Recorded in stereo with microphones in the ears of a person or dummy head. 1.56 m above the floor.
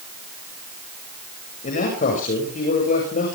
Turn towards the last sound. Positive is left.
turn(degrees=55)  # may be behind; listen again after turning